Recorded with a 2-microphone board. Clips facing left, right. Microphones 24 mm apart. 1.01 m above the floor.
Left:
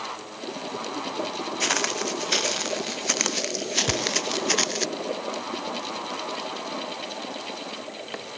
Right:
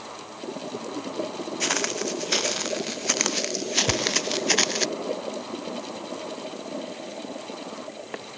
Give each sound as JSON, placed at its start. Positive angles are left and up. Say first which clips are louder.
{"t": 1.6, "sound": "footsteps", "louder": "left 1 dB", "side_deg": 5}
{"t": 3.9, "sound": "a thud", "louder": "right 1 dB", "side_deg": 40}